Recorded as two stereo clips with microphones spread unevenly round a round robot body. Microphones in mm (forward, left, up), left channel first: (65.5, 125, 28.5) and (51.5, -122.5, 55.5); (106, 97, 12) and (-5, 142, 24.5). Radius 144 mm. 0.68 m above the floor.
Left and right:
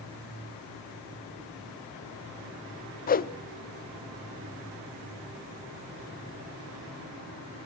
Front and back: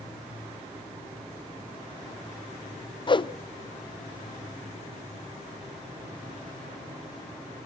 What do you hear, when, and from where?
3.1 s a whoosh: 30° left, 0.8 m